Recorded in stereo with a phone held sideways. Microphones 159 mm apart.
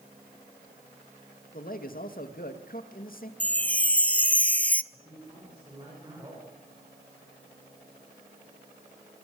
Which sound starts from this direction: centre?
A chime, at 3.4 s.